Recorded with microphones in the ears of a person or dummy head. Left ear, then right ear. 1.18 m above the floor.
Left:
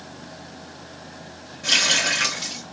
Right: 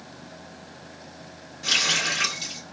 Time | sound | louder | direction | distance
1.6 | a running tap | left 3 dB | 70° right (ahead or behind) | 2.5 m